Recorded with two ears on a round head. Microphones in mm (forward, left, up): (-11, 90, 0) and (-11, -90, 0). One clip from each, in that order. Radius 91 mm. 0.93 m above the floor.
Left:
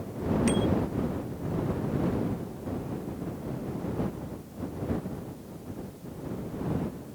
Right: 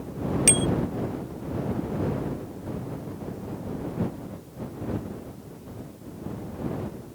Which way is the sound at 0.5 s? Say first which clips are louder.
Right 6 dB; 65° right (ahead or behind).